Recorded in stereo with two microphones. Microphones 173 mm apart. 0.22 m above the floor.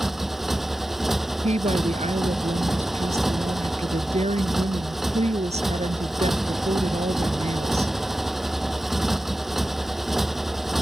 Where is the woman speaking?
40° right (ahead or behind).